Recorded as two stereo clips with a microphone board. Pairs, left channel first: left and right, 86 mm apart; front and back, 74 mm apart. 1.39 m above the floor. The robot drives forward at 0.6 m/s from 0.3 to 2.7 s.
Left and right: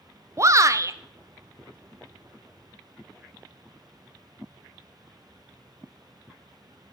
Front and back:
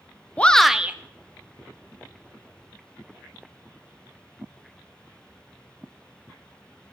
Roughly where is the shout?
Ahead right.